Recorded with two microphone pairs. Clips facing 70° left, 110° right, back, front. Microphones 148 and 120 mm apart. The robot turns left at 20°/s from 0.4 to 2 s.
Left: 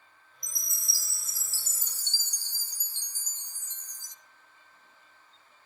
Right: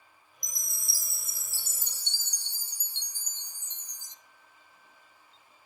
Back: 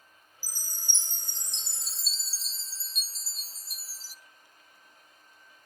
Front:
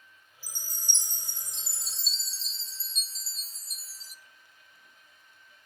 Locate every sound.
0.4 s a chime: 65° right, 0.6 m; by 4.2 s 95° right, 0.6 m